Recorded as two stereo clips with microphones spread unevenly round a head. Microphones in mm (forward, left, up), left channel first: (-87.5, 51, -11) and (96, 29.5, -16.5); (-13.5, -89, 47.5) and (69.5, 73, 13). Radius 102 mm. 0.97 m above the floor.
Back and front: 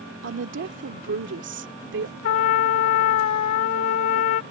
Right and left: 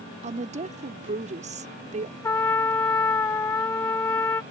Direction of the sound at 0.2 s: 10° left.